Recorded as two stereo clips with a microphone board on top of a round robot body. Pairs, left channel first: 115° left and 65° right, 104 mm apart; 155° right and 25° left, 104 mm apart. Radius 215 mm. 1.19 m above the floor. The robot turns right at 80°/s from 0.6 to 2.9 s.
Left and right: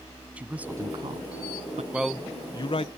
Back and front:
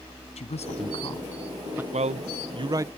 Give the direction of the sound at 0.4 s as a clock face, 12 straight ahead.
5 o'clock.